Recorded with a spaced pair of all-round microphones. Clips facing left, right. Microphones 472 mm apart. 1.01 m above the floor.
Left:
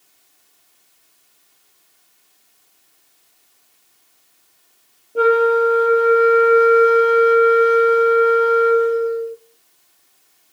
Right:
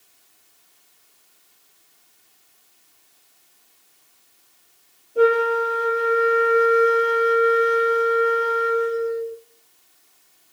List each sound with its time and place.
5.2 s a flute: 75° left (ahead or behind), 1.3 m